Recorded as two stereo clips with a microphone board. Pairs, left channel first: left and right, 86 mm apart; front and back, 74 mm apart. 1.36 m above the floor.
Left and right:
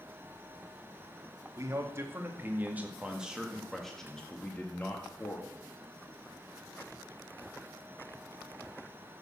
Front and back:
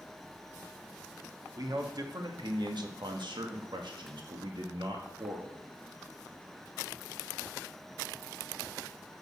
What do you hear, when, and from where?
1.6 s a man speaking: 145° right, 2 m; by 5.5 s 145° left, 1.9 m